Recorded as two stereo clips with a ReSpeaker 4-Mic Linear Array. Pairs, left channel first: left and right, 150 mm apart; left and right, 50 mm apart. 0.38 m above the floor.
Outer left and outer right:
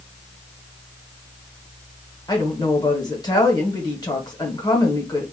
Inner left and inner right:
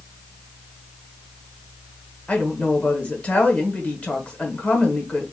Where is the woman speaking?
25° left (ahead or behind), 1.0 m.